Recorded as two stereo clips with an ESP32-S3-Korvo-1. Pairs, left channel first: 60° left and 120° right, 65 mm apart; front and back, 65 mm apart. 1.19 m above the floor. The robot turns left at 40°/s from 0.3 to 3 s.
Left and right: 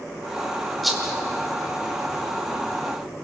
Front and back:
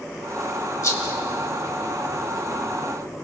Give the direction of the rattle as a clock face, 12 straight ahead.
1 o'clock.